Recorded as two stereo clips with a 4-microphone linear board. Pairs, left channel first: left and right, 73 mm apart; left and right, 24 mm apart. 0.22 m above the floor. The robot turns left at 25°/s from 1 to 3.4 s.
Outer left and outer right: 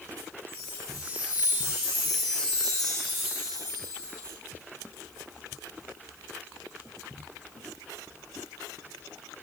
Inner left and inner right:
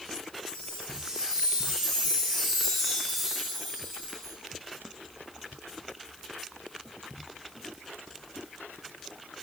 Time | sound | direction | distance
0.5 | a chime | 55° left | 6.5 m